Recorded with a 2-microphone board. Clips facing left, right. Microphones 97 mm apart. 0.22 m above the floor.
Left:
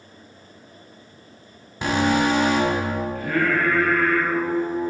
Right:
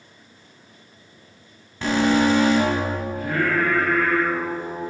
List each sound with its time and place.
1.8 s an alarm: 15° left (ahead or behind), 1.7 m
3.1 s singing: 20° right (ahead or behind), 2 m